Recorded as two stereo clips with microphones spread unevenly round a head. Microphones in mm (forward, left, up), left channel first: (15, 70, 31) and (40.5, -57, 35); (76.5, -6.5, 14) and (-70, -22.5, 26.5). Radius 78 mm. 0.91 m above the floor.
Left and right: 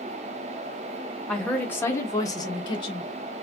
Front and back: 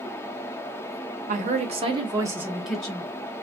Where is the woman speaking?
Straight behind, 0.9 m; by 3.1 s 75° left, 0.8 m.